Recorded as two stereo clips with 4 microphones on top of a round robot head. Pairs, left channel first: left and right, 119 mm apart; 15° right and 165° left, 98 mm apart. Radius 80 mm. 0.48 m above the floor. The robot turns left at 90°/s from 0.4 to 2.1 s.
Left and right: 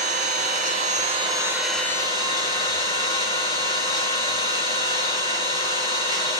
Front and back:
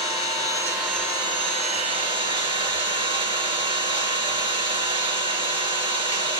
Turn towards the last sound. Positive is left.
turn(degrees=145)